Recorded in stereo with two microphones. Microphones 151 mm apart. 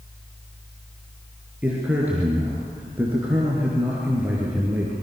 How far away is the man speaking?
About 4 m.